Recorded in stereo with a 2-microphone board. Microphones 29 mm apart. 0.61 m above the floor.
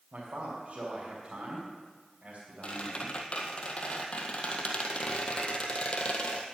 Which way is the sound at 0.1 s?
65° right (ahead or behind).